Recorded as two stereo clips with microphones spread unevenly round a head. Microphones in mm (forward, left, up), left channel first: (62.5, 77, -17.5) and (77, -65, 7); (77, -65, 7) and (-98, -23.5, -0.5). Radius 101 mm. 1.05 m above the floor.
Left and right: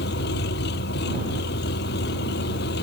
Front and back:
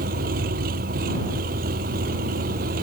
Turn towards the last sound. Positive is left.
turn(degrees=115)